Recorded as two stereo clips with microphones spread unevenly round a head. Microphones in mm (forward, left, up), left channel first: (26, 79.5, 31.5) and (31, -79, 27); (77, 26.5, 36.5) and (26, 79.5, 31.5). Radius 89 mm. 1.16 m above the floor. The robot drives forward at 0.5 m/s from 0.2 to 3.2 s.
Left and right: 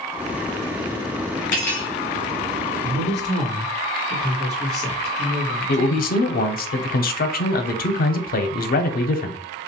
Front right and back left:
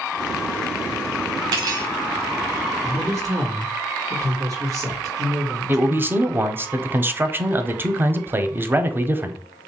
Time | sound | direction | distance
1.5 | cutlery clinking | 130° left | 0.7 m
2.8 | a man speaking | 170° left | 1.4 m
5.7 | a man speaking | 75° left | 0.5 m